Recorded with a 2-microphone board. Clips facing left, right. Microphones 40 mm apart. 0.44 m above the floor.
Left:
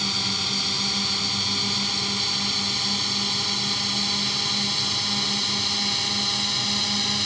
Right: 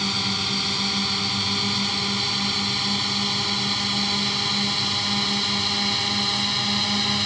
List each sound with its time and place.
0.0 s a drone: 10° right (ahead or behind); by 7.3 s 15° right (ahead or behind)